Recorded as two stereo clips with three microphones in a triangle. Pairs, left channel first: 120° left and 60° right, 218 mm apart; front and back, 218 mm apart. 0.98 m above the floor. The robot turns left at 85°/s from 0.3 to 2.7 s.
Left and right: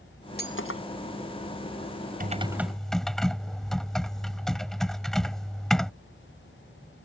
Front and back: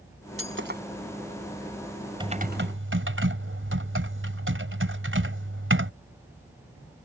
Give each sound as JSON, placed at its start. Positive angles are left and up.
{"t": 0.4, "sound": "breaking glass", "azimuth_deg": 165}
{"t": 2.2, "sound": "typing on a keyboard", "azimuth_deg": -110}